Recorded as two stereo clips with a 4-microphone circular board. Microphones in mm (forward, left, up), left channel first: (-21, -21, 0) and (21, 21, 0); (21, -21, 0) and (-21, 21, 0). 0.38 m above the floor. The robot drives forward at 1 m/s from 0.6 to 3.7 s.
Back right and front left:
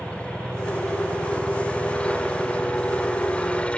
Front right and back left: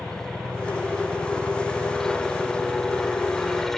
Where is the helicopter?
105° right; by 3.8 s 115° right.